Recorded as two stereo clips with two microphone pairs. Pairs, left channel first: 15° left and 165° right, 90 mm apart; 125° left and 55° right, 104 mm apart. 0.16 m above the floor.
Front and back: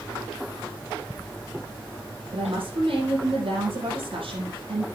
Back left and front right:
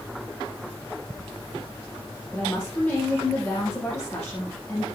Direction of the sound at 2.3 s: 155° right.